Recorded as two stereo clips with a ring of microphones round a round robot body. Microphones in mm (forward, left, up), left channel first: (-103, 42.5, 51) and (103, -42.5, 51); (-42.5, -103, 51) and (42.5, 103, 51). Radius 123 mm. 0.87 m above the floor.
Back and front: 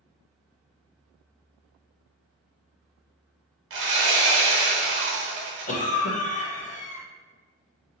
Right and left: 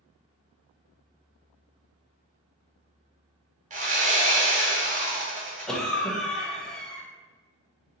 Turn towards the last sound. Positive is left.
turn(degrees=160)